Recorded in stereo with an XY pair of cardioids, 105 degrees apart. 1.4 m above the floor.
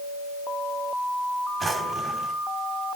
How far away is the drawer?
About 3.5 m.